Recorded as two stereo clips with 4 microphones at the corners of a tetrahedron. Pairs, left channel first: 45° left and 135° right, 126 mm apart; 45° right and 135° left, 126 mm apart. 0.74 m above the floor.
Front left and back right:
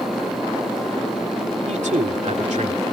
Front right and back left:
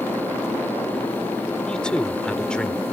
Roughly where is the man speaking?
Behind right.